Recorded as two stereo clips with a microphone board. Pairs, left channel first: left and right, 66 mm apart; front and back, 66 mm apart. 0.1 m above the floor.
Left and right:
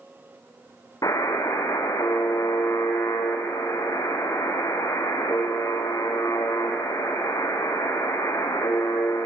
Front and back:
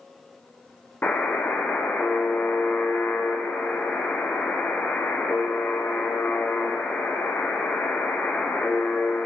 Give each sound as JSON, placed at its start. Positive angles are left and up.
{"t": 1.0, "sound": "a buzzer", "azimuth_deg": 65, "distance_m": 3.0}